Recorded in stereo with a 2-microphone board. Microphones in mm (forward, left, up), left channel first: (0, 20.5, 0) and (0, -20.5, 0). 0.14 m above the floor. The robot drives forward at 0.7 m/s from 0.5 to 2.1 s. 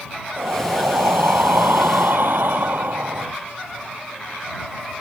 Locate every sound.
0.4 s breathing: 70° right (ahead or behind); by 3.3 s 60° right (ahead or behind)